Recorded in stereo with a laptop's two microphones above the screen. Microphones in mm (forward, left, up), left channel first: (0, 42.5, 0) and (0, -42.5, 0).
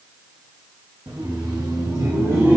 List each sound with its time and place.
1.1 s laughter: 60° right (ahead or behind), 1.5 m; by 2.6 s 25° right (ahead or behind), 1.6 m